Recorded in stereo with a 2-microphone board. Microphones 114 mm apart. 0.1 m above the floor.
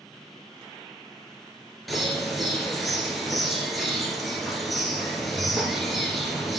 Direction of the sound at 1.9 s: Centre (ahead or behind).